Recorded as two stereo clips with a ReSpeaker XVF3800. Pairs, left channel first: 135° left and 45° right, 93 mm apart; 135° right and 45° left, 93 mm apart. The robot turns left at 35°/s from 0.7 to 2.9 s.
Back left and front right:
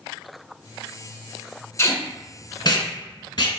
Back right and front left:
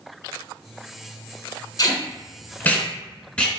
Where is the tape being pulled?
170° right, 0.7 m; by 3.5 s 150° left, 0.7 m.